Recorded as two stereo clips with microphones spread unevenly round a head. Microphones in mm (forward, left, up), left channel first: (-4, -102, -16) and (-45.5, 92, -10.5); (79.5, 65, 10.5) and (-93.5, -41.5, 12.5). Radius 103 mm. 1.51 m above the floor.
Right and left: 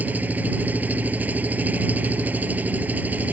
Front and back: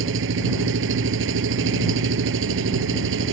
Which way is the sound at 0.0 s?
175° right.